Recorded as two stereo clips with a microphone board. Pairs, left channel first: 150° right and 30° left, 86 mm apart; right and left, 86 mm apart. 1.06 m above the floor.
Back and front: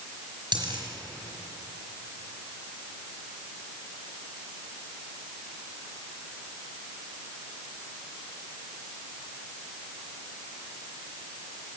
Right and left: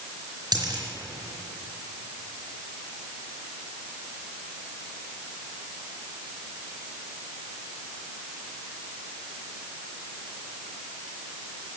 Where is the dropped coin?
50° left, 4 m.